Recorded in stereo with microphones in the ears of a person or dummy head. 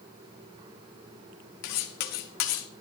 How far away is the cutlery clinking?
About 0.8 m.